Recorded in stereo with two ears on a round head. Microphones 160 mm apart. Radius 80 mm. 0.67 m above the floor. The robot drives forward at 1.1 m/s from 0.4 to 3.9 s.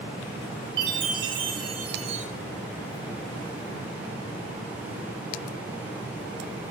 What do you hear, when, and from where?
0.8 s a chime: 25° right (ahead or behind), 4 m; by 2.3 s 40° right (ahead or behind), 2.5 m